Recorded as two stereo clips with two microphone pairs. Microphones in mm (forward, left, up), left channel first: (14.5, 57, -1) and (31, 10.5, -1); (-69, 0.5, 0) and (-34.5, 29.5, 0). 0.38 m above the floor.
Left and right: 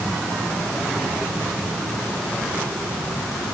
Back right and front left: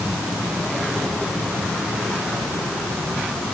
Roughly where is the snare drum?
I don't hear a snare drum.